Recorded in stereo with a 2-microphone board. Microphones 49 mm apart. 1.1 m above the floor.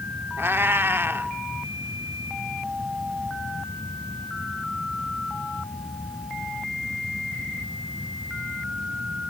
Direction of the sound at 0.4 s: 50° right (ahead or behind).